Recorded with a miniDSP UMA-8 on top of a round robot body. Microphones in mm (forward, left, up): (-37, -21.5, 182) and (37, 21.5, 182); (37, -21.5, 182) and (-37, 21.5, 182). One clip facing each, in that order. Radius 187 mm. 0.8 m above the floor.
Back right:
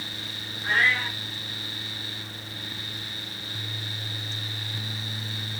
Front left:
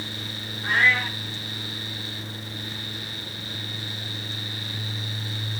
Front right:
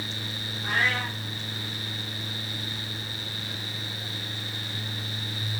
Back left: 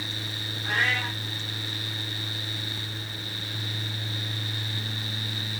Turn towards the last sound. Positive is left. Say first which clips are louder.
# front left 2 dB, even
turn(degrees=-40)